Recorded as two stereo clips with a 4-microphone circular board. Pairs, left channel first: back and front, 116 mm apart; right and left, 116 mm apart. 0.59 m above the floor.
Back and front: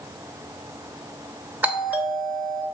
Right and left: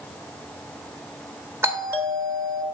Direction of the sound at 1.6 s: 55° left.